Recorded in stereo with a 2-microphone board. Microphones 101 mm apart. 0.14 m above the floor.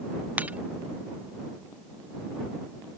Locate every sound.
0.4 s breaking glass: 15° right (ahead or behind)